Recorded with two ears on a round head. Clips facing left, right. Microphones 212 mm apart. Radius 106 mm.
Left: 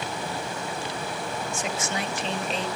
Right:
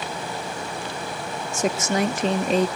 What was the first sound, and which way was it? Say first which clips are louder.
A woman speaking: right 11 dB; 35° right (ahead or behind).